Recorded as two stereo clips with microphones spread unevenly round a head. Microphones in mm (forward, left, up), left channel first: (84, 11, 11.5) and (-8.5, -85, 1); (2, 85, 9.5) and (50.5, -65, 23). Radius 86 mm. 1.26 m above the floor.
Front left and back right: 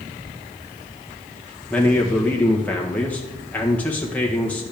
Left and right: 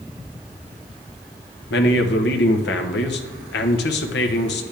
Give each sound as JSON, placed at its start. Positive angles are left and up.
{"t": 1.7, "sound": "a man speaking", "azimuth_deg": 130, "distance_m": 1.2}